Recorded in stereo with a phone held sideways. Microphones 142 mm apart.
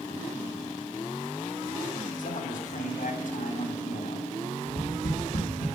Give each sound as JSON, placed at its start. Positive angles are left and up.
{"t": 2.2, "sound": "a man speaking", "side_deg": 70, "distance_m": 2.5}
{"t": 4.7, "sound": "tapping", "side_deg": 80, "distance_m": 3.5}